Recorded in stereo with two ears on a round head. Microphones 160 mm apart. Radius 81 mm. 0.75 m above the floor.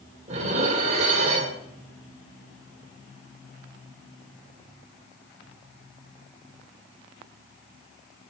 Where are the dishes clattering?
35° right (ahead or behind), 1.6 m.